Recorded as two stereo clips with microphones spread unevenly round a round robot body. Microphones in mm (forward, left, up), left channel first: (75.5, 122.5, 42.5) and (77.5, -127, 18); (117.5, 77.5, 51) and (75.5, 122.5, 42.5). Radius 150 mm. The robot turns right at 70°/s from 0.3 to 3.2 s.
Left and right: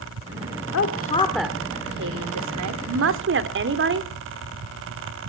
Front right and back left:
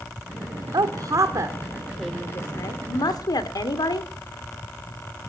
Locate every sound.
0.7 s a woman speaking: 135° left, 1.8 m; by 4.1 s 55° right, 1.8 m